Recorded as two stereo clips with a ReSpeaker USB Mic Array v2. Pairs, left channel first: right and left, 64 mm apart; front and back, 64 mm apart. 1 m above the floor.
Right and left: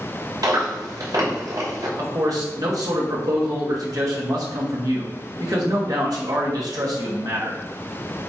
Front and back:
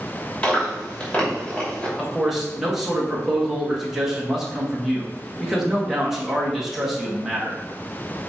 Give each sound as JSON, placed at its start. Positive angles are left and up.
{"t": 0.4, "sound": "chewing", "azimuth_deg": 75, "distance_m": 2.5}
{"t": 2.0, "sound": "a man speaking", "azimuth_deg": 95, "distance_m": 1.9}